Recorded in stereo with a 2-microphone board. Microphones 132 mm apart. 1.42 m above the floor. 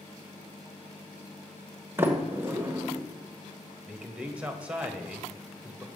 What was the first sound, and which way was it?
A sliding door, 15° right (ahead or behind).